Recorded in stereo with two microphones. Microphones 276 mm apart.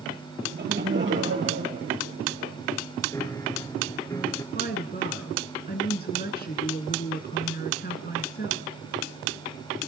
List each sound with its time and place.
0.4 s laughter: 35° right (ahead or behind), 4 m; by 2.5 s 55° right (ahead or behind), 3.5 m
3.1 s a piano: 10° left (ahead or behind), 1.1 m
4.5 s a woman speaking: 35° left (ahead or behind), 1.2 m